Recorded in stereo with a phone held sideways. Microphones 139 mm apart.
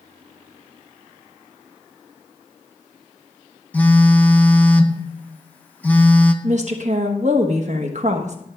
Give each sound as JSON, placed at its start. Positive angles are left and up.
{"t": 3.7, "sound": "a phone buzzing", "side_deg": 10, "distance_m": 0.9}
{"t": 6.4, "sound": "a woman speaking", "side_deg": -55, "distance_m": 1.1}